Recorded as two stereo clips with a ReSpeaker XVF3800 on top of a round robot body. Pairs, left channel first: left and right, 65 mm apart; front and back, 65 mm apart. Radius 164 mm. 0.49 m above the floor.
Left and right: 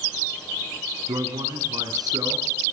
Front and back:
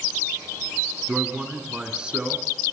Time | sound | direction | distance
1.1 | a man speaking | 105° right | 8 m